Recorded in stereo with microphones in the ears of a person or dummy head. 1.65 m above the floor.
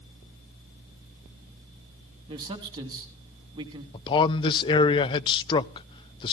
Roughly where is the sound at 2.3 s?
Right.